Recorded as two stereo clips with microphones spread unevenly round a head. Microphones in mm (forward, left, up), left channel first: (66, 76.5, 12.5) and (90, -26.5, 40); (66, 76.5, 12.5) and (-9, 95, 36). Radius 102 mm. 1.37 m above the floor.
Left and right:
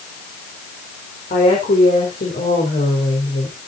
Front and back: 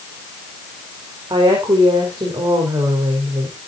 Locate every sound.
1.3 s a woman speaking: 135° left, 4 m